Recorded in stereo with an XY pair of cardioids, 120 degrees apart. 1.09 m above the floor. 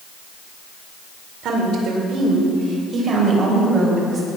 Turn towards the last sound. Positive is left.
turn(degrees=-25)